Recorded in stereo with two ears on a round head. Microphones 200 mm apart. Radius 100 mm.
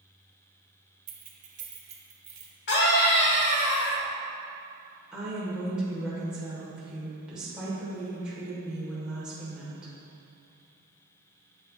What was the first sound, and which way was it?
Keys jangling, 40° right (ahead or behind).